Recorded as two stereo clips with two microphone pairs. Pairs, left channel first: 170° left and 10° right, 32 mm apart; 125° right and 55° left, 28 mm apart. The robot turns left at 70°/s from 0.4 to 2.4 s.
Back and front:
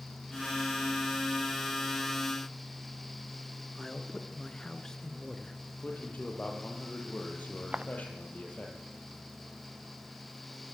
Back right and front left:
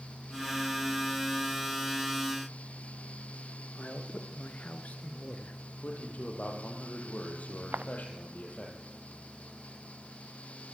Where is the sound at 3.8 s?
120° right, 2.5 m.